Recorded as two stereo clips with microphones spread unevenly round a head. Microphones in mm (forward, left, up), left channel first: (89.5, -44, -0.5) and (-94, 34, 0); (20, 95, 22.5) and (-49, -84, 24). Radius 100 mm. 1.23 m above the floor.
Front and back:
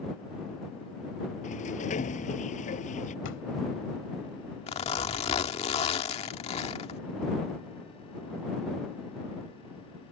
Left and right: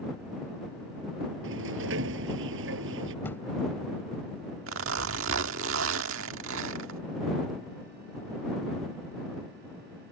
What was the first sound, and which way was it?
A sliding door, 80° right.